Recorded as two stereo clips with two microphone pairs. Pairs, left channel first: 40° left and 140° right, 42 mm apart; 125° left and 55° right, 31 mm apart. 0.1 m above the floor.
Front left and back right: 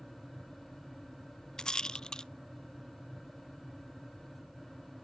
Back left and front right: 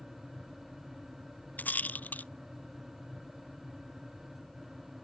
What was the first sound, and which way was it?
A rattle, 110° left.